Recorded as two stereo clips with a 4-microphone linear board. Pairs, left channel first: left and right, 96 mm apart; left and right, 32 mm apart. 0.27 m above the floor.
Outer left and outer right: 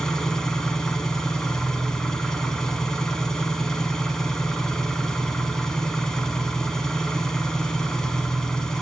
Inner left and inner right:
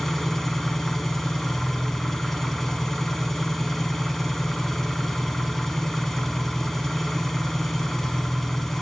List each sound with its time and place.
0.0 s an engine running: 5° left (ahead or behind), 0.7 m